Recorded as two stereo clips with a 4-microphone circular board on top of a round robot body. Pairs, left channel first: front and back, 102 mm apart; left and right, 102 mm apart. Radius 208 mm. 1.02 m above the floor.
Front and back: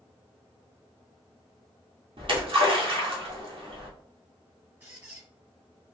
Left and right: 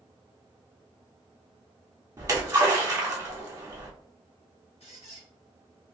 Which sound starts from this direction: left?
A squeak, at 4.8 s.